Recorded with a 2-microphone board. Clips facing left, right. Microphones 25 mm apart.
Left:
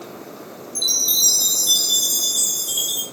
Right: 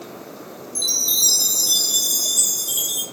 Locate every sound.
0.8 s a chime: 20° left (ahead or behind), 1.9 m